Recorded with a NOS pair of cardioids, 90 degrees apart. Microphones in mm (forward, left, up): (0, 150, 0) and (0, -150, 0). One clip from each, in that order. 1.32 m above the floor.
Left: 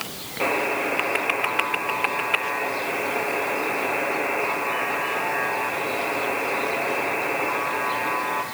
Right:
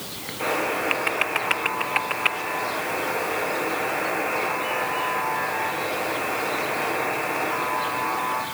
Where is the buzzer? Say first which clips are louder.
Left 1 dB; 50° left, 5.5 m.